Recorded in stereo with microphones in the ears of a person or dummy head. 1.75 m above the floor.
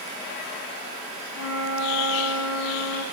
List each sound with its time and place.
1.3 s a flute: 75° left (ahead or behind), 2.5 m